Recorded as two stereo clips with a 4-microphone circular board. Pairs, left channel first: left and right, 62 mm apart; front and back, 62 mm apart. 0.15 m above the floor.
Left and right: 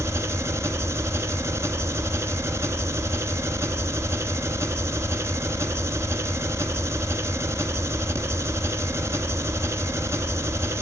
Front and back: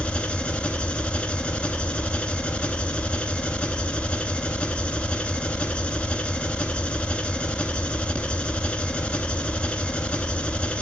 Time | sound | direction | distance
0.0 | an engine running | 65° right | 0.8 m